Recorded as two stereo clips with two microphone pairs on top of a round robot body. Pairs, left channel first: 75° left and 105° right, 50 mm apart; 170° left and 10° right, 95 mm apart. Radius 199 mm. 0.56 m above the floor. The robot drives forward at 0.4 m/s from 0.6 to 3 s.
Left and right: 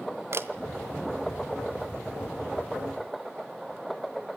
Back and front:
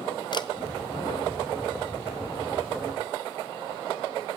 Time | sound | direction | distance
0.3 | a camera shutter | 145° right | 0.6 m